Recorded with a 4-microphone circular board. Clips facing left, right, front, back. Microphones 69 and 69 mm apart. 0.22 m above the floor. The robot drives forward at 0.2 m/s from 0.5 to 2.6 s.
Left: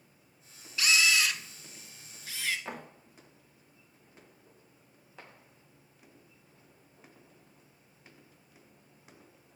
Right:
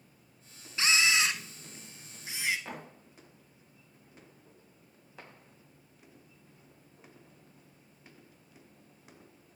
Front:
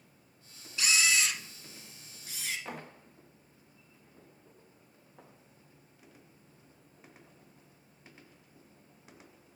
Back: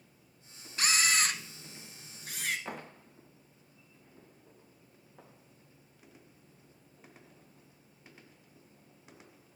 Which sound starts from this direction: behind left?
A thud, at 2.7 s.